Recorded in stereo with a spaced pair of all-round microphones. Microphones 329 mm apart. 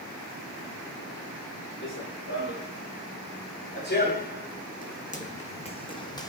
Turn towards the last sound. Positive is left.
turn(degrees=10)  # may be behind; listen again after turning